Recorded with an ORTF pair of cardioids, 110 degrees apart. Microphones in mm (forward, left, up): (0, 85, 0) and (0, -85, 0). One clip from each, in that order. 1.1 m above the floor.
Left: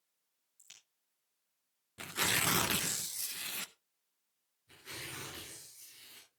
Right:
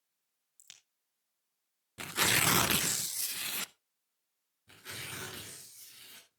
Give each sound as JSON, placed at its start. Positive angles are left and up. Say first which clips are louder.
{"t": 0.6, "sound": "a crack", "louder": "right 2 dB", "azimuth_deg": -50, "distance_m": 7.0}
{"t": 2.0, "sound": "tearing paper", "louder": "right 4 dB", "azimuth_deg": -20, "distance_m": 0.5}
{"t": 4.7, "sound": "tearing paper", "louder": "right 2 dB", "azimuth_deg": -65, "distance_m": 8.0}